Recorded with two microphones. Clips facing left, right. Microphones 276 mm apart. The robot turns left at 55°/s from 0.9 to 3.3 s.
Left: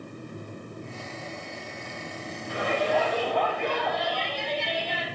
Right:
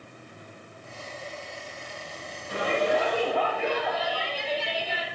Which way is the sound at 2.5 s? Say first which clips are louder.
Right 1 dB; 130° right.